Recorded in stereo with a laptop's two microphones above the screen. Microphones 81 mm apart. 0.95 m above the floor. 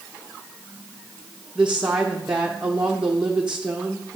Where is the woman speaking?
10° right (ahead or behind), 0.7 m.